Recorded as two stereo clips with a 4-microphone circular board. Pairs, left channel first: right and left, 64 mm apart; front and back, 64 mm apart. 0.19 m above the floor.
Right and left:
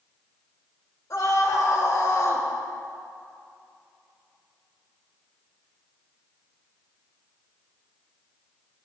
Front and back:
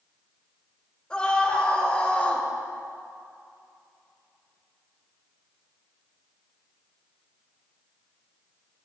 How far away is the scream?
About 4.5 m.